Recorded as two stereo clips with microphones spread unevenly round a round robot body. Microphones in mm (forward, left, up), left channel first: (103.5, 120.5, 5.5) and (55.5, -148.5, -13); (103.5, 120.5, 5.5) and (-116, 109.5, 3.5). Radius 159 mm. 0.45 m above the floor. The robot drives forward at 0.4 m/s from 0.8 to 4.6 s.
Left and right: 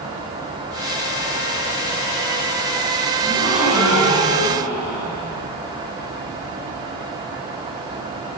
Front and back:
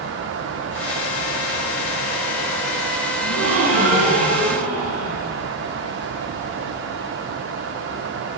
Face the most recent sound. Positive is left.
turn(degrees=175)